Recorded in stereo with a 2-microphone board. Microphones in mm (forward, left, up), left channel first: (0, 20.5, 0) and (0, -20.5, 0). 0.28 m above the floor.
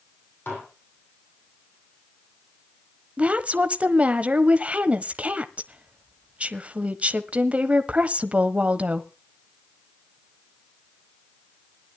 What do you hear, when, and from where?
0.5 s dishes clattering: 70° left (ahead or behind), 7.5 m
3.2 s a woman speaking: 35° right (ahead or behind), 1.2 m